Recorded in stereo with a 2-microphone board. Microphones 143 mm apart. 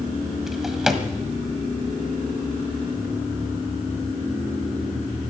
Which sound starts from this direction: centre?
A drawer, at 0.5 s.